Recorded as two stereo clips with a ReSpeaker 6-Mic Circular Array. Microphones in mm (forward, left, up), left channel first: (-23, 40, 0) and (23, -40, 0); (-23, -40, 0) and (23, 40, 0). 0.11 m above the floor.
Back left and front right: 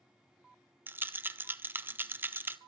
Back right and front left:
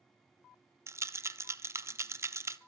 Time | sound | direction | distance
0.9 | a rattle | 5° left | 0.5 m